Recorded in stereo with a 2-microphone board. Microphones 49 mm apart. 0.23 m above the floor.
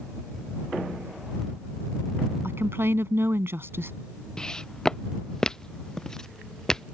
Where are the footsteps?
15° left (ahead or behind); by 6.8 s 10° left (ahead or behind).